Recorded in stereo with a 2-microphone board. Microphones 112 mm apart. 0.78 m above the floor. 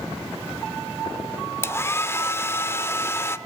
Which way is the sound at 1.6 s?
20° left (ahead or behind).